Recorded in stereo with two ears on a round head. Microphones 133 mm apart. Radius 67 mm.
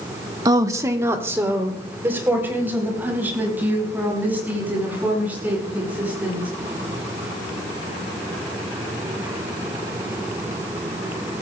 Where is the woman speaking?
25° right (ahead or behind), 1.1 m; by 6.5 s 10° right (ahead or behind), 9.5 m.